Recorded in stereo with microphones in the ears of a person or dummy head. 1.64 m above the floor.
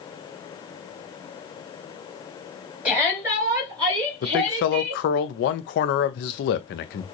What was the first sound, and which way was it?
A shout, 10° right (ahead or behind).